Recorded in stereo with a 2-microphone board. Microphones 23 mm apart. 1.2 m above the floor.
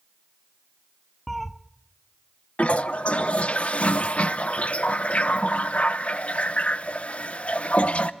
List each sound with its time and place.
1.3 s a cat meowing: centre (ahead or behind), 0.7 m
2.6 s a toilet flushing: 65° left (ahead or behind), 0.7 m